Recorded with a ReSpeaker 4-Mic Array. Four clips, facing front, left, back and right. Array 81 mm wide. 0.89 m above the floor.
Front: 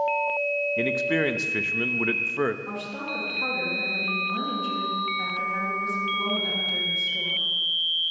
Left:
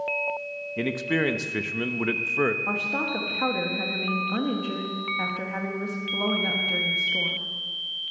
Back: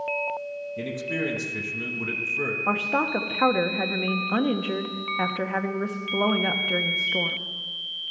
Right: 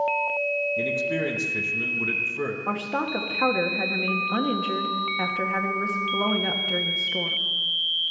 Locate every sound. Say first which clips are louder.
0.8 s a man speaking: even, front 4 dB; 45° left, 1.0 m
2.7 s a woman speaking: right 2 dB, back 8 dB; 165° right, 1.3 m